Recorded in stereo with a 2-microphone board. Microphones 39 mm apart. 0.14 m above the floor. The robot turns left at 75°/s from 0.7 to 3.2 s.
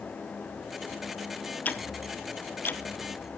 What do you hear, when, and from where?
1.6 s ticking: 40° left (ahead or behind), 0.7 m; by 2.8 s 50° left (ahead or behind), 0.7 m